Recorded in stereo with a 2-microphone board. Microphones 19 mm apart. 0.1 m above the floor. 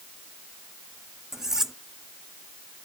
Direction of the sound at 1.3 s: 25° right (ahead or behind).